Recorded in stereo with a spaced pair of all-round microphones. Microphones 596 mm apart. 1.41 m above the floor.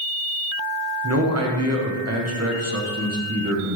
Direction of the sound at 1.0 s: 25° right (ahead or behind).